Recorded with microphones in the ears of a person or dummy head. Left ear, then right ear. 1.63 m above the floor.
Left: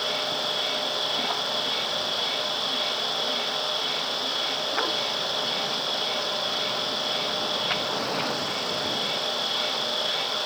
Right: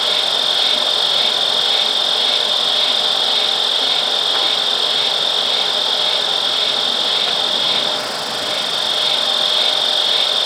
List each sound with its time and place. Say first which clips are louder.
0.0 s an insect: right 11 dB; 55° right (ahead or behind)